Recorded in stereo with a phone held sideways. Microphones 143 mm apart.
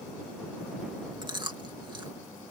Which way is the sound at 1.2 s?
30° right (ahead or behind).